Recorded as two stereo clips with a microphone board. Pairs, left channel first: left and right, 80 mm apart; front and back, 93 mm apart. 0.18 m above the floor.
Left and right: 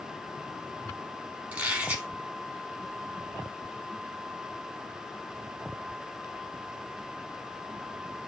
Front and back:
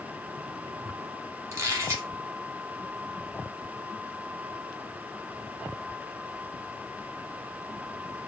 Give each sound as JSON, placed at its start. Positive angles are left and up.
{"t": 1.5, "sound": "a squeak", "azimuth_deg": -150, "distance_m": 0.8}